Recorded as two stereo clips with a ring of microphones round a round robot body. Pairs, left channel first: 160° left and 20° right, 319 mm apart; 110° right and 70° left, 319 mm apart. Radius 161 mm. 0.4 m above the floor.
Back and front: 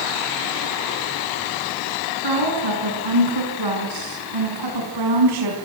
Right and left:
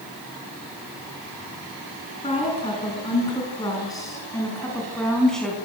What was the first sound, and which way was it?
A woman speaking, 40° right.